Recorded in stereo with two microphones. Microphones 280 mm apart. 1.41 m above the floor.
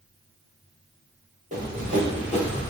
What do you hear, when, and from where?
1.5 s running footsteps: 25° right (ahead or behind), 1.9 m